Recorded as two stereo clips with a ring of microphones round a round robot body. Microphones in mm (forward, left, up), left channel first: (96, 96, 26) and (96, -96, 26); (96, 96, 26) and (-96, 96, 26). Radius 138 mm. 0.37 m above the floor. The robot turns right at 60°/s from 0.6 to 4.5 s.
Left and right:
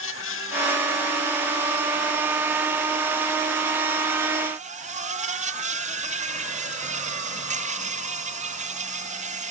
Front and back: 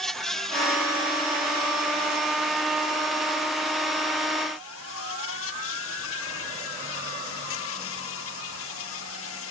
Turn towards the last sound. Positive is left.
turn(degrees=-40)